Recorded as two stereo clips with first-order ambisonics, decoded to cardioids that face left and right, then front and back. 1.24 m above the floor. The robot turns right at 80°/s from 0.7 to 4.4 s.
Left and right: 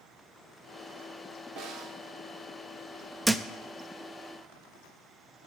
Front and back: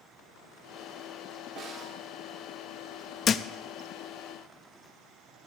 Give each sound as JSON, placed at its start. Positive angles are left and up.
{"t": 1.6, "sound": "a snare drum", "azimuth_deg": -135, "distance_m": 3.0}
{"t": 3.2, "sound": "a thud", "azimuth_deg": -15, "distance_m": 0.5}